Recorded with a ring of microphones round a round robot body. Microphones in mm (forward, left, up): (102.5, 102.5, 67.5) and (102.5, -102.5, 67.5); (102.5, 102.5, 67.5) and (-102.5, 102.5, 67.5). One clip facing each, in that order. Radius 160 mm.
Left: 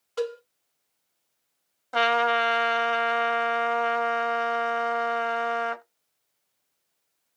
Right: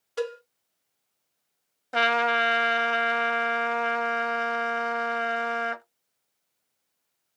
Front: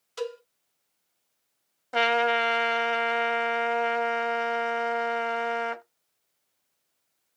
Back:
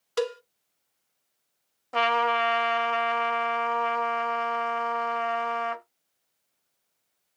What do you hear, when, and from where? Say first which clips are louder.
0.2 s a cowbell: left 1 dB, back 5 dB; 170° right, 0.7 m
1.9 s a trumpet: left 2 dB, front 2 dB; 60° right, 1.1 m